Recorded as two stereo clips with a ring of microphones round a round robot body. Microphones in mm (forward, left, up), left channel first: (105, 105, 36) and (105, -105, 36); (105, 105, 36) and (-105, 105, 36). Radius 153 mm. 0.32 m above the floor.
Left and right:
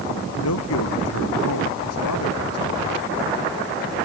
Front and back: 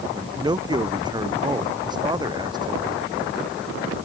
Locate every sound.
0.1 s a man speaking: 110° left